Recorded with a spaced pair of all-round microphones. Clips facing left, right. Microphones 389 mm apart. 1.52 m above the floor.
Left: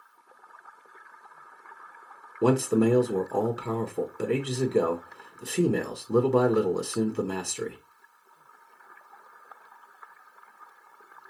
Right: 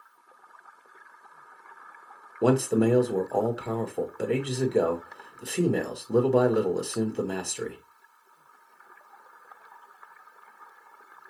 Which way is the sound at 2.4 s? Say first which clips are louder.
Even; 15° left (ahead or behind).